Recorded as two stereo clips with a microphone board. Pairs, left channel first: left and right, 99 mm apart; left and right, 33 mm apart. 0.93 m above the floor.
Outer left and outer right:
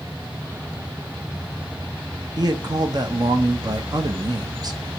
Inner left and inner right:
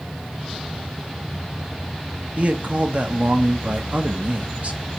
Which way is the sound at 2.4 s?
45° right (ahead or behind).